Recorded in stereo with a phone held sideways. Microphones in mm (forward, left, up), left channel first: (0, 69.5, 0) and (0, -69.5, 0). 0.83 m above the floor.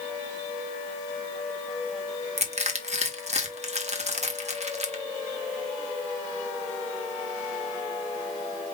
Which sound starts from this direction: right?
Crushing, at 2.4 s.